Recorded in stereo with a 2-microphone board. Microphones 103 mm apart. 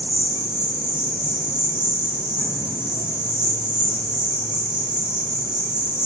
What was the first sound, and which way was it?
An insect, 10° right (ahead or behind).